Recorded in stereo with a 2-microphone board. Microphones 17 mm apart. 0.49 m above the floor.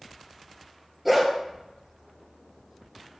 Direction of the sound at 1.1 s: 10° right (ahead or behind).